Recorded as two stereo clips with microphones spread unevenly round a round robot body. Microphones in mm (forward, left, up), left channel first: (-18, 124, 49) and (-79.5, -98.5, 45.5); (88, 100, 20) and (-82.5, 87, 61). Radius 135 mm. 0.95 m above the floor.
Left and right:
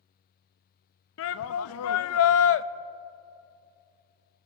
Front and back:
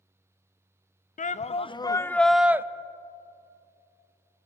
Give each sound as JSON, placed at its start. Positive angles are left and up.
{"t": 1.2, "sound": "a shout", "azimuth_deg": 40, "distance_m": 0.9}